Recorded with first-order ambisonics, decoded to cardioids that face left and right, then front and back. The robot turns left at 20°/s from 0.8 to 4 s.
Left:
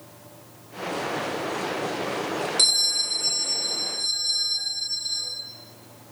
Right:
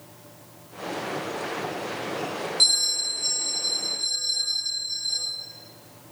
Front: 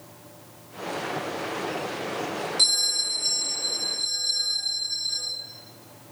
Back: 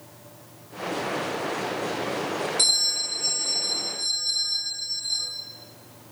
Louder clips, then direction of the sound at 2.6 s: Even, front 1 dB; 90° left.